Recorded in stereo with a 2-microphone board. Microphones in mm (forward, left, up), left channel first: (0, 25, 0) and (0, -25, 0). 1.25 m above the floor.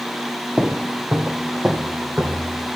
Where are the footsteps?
20° right (ahead or behind), 1.3 m; by 2.7 s 30° right (ahead or behind), 3.5 m.